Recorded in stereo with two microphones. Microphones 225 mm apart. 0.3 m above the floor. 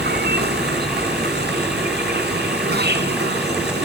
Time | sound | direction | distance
0.0 | an insect | 50° right (ahead or behind) | ?